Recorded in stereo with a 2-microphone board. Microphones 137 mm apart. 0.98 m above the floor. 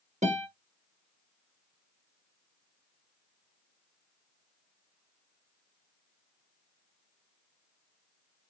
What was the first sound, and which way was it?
A guitar, 65° right (ahead or behind).